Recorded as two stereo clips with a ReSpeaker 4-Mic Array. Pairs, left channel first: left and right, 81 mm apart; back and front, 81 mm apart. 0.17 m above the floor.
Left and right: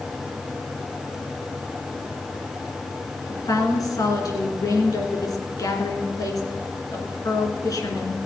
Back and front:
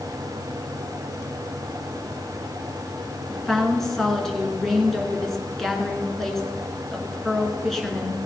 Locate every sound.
3.3 s a woman speaking: 95° left, 2.5 m